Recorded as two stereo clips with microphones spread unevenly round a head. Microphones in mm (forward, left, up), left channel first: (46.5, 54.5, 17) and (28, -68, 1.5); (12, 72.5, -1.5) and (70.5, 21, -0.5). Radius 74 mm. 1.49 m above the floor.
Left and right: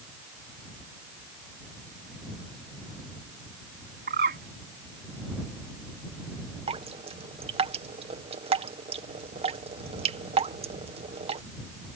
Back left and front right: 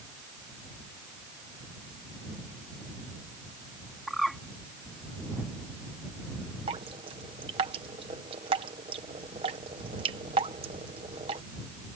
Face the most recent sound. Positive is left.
turn(degrees=-60)